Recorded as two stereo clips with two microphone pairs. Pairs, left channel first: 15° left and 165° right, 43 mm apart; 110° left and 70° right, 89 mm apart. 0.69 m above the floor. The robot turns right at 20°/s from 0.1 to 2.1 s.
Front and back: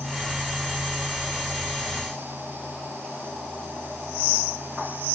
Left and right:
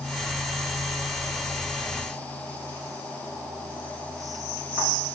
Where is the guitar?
I don't hear a guitar.